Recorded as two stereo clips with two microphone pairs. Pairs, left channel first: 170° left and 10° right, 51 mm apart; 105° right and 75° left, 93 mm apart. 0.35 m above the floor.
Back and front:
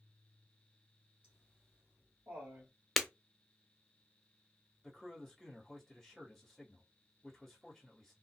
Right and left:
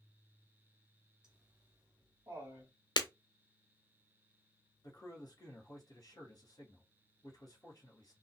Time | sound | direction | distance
1.2 | laughter | 5° left | 1.3 m
3.0 | breaking glass | 100° right | 0.6 m
4.8 | a man speaking | 100° right | 1.9 m